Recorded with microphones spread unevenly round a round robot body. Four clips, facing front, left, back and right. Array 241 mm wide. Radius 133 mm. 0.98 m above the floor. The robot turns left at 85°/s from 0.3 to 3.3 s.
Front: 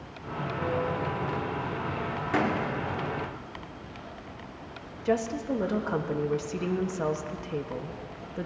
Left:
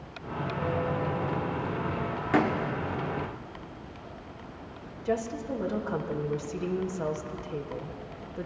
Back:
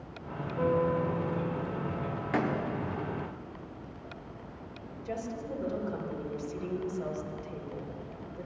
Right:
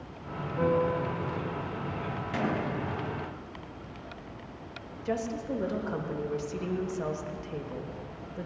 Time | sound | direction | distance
0.6 | a piano | 105° right | 1.6 m
2.3 | a door slam | 75° left | 1.6 m
5.0 | a woman speaking | straight ahead | 1.4 m